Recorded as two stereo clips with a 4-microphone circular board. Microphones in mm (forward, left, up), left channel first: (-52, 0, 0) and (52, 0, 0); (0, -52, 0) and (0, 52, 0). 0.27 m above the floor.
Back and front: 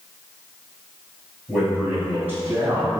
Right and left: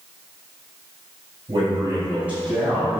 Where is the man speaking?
95° left, 1.9 m; by 3.0 s 15° right, 1.7 m.